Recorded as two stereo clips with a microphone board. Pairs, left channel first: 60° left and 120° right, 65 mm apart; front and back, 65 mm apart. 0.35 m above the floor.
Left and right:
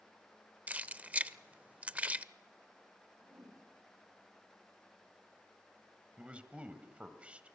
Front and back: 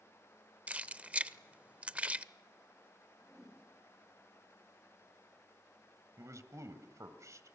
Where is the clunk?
I don't hear a clunk.